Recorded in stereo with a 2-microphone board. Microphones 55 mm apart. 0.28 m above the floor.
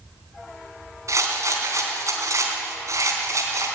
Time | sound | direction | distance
1.1 | a rattle | 60° right (ahead or behind) | 3 m